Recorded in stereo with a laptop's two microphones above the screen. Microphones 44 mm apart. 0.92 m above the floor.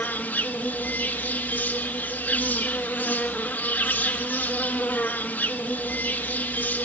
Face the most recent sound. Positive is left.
turn(degrees=50)  # may be behind; listen again after turning